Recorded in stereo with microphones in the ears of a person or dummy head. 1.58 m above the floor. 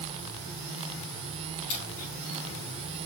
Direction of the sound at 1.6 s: 45° left (ahead or behind).